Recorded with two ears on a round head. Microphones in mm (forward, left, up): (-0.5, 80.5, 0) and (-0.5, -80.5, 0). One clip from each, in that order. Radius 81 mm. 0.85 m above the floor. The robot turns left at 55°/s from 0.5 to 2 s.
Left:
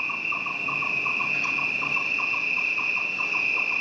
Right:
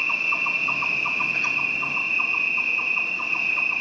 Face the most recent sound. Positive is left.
turn(degrees=140)